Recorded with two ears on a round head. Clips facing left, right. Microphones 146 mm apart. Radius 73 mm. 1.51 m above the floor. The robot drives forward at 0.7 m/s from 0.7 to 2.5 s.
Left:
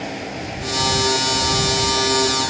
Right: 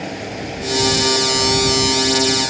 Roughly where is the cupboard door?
No cupboard door in this recording.